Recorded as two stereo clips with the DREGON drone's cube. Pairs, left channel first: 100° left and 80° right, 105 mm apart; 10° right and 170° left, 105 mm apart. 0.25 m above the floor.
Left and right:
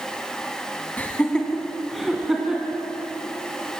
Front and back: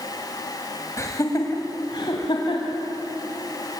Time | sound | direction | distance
1.0 | laughter | 35° left | 2.0 m